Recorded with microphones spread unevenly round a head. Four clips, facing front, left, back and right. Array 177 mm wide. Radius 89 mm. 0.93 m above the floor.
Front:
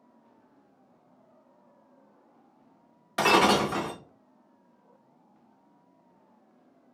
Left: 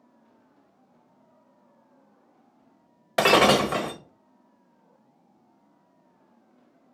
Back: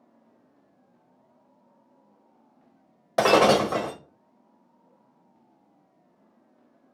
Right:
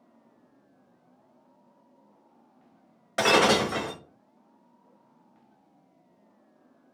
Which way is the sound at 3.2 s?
150° left.